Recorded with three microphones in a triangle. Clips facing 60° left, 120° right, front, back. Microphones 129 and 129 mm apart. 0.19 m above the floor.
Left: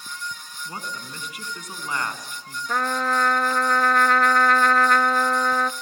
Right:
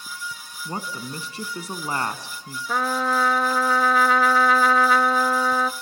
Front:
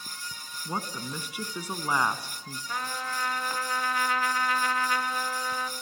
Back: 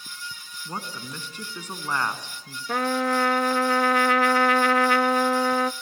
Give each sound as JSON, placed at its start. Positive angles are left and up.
{"t": 0.7, "sound": "a woman speaking", "azimuth_deg": -75, "distance_m": 2.0}
{"t": 2.7, "sound": "a trumpet", "azimuth_deg": 155, "distance_m": 0.5}